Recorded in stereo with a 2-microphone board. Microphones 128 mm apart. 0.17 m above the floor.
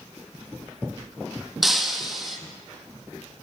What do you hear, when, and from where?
1.6 s breaking glass: centre (ahead or behind), 0.9 m